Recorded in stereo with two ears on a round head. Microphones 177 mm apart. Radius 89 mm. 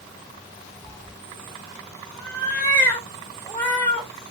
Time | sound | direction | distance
0.8 | a cat meowing | 10° left (ahead or behind) | 1.2 m